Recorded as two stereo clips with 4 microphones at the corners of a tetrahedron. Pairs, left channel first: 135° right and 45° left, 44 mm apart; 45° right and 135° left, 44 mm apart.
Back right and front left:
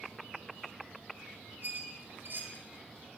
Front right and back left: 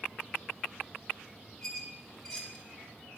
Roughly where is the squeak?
Ahead left.